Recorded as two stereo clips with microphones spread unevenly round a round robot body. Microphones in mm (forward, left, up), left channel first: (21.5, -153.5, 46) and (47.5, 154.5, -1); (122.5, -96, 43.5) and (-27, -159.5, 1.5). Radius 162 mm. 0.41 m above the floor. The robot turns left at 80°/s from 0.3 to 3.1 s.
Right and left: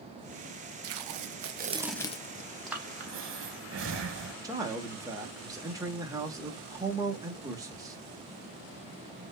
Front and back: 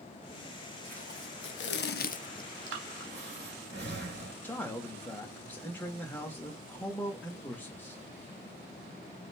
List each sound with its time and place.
0.8 s tape being pulled: 80° left, 0.5 m; by 2.5 s 50° right, 0.5 m
2.7 s breathing: straight behind, 0.5 m; by 4.3 s 145° left, 0.5 m
4.4 s a man speaking: 120° left, 0.8 m